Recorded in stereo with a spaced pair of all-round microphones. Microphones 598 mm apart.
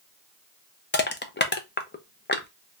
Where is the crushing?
20° left (ahead or behind), 0.5 m.